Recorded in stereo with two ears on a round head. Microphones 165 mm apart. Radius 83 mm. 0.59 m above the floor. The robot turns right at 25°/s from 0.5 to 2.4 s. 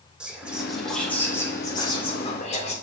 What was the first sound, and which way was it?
Whispering, 5° right.